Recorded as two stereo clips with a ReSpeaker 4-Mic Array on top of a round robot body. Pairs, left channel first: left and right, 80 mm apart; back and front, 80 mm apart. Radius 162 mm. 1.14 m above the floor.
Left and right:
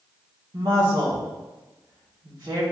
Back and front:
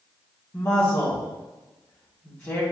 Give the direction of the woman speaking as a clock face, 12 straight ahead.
4 o'clock.